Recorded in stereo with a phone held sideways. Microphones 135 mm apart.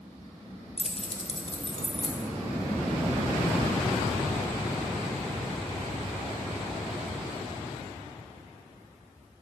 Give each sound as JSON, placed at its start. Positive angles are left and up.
{"t": 0.8, "sound": "keys jangling", "side_deg": 50, "distance_m": 0.6}